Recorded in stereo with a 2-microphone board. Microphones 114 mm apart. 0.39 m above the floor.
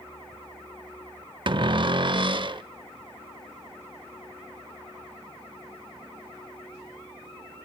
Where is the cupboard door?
50° right (ahead or behind), 0.5 m.